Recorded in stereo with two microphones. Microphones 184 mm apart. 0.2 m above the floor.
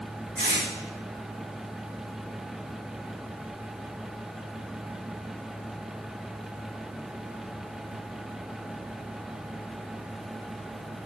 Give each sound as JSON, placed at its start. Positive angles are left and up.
{"t": 0.4, "sound": "tape being pulled", "side_deg": -60, "distance_m": 5.5}